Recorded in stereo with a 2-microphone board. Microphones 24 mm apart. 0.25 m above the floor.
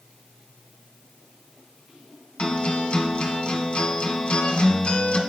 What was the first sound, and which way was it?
A guitar, 55° left (ahead or behind).